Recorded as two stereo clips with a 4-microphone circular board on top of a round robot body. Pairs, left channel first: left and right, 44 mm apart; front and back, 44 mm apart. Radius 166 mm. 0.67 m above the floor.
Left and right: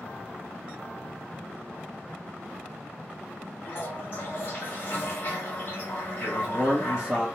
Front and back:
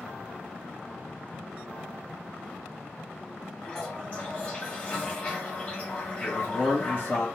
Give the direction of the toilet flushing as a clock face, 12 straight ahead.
10 o'clock.